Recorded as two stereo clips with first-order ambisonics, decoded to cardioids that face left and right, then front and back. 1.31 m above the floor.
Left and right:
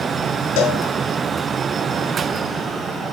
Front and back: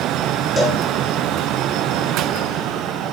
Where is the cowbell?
85° left, 6 m.